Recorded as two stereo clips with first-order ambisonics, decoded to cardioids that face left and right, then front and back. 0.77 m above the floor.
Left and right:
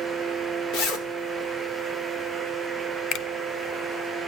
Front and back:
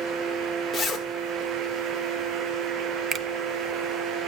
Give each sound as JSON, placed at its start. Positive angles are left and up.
{"t": 0.7, "sound": "a zipper", "azimuth_deg": 75, "distance_m": 2.0}
{"t": 3.1, "sound": "a finger snap", "azimuth_deg": 120, "distance_m": 0.5}